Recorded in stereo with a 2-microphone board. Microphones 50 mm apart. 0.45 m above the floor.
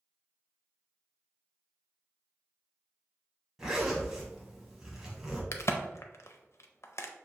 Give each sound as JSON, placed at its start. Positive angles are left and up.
{"t": 3.6, "sound": "a zipper", "side_deg": -10, "distance_m": 1.4}
{"t": 5.5, "sound": "a crack", "side_deg": 70, "distance_m": 0.5}